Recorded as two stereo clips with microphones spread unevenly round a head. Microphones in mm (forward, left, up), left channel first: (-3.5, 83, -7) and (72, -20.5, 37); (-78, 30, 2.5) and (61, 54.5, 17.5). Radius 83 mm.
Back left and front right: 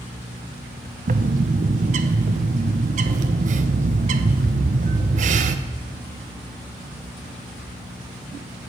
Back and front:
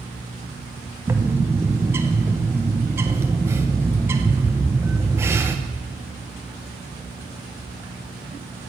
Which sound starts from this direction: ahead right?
A bird, at 1.1 s.